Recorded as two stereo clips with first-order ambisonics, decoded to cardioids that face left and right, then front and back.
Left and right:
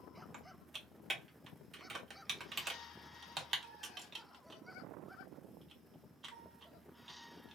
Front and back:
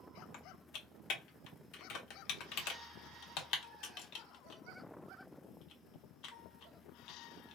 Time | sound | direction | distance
0.3 | typing on a keyboard | 20° right | 1.0 m